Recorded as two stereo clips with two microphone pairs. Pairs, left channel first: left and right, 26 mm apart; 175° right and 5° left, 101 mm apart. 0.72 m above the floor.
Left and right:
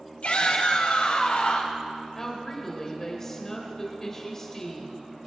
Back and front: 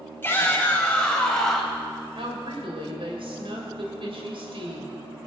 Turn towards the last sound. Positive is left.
turn(degrees=25)